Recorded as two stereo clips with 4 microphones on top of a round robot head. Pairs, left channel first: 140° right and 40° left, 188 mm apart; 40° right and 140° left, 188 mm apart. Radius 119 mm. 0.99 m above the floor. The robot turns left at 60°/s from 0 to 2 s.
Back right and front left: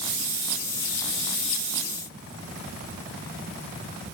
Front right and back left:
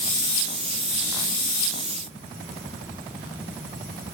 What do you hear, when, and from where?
Only background noise.